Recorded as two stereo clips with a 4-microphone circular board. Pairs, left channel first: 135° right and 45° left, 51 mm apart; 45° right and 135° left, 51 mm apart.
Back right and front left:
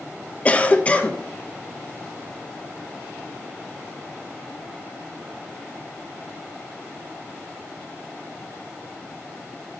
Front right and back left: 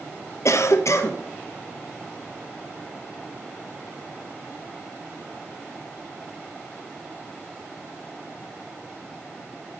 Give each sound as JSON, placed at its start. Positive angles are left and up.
{"t": 0.5, "sound": "a cough", "azimuth_deg": -70, "distance_m": 1.0}